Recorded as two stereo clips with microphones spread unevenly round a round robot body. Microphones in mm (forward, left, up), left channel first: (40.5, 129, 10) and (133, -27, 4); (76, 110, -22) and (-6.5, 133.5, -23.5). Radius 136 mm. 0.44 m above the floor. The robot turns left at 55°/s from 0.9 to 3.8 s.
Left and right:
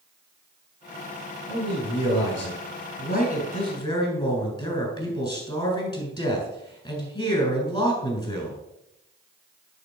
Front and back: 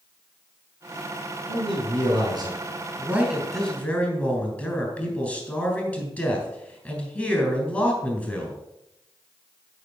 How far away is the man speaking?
About 3.5 m.